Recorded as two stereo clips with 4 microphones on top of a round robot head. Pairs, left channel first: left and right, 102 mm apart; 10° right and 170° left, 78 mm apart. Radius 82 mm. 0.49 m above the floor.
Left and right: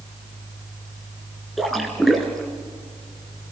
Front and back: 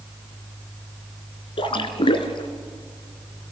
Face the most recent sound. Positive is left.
turn(degrees=0)